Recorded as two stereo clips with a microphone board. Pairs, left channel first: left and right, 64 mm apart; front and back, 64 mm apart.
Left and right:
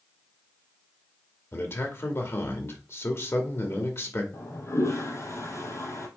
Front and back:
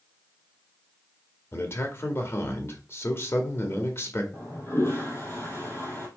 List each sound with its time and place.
1.5 s a man speaking: 45° left, 2 m
4.3 s a toilet flushing: 50° left, 3.5 m